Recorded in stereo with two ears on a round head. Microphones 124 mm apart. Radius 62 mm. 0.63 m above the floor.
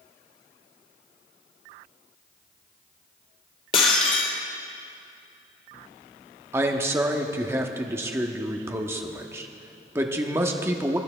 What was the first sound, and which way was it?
Breaking glass, 40° left (ahead or behind).